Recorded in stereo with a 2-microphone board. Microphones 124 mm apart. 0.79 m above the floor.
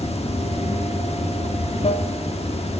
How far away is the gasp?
I don't hear a gasp.